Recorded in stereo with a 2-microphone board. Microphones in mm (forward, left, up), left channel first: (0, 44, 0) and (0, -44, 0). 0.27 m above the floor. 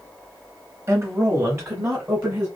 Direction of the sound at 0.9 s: 35° right (ahead or behind).